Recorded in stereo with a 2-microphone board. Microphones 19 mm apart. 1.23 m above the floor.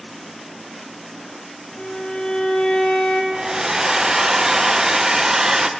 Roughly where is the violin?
Left.